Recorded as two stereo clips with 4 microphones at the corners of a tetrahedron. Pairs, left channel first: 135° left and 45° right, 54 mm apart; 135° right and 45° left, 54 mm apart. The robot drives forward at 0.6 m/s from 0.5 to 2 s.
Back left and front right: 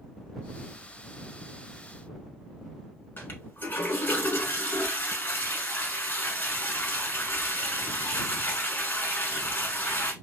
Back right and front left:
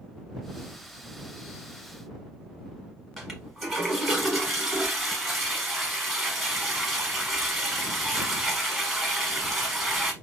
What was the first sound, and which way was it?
A toilet flushing, 135° left.